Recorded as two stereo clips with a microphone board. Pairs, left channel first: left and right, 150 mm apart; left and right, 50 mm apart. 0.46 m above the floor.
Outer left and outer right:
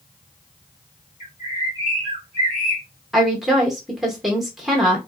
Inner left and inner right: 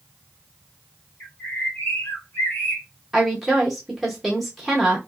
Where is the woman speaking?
Centre (ahead or behind), 0.8 m.